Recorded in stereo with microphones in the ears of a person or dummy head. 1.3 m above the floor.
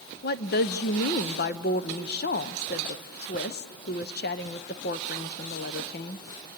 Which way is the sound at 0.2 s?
50° left (ahead or behind).